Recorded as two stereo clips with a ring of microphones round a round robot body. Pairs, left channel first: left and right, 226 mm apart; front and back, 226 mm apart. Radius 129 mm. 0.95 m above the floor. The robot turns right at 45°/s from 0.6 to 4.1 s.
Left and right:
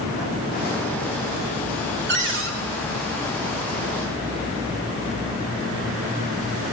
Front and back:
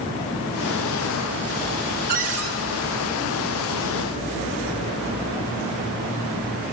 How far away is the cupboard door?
About 1.8 m.